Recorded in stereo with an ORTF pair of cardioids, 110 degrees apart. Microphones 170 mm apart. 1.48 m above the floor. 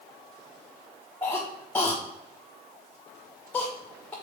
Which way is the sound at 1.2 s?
10° left.